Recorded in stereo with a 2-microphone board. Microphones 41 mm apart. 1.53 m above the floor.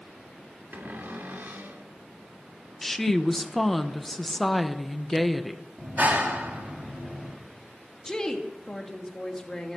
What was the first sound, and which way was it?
A cupboard door, 55° right (ahead or behind).